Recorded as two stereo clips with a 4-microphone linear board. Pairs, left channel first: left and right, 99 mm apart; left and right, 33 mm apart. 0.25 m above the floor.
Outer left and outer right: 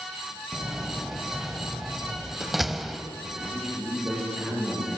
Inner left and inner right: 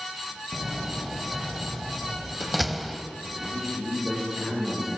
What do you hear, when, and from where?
0.5 s a door slam: centre (ahead or behind), 0.7 m
3.4 s a man speaking: 5° right (ahead or behind), 5 m